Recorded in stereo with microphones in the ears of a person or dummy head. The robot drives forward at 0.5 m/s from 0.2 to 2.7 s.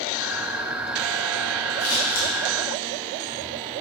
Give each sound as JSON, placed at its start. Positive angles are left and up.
{"t": 1.8, "sound": "scissors", "side_deg": 80, "distance_m": 0.9}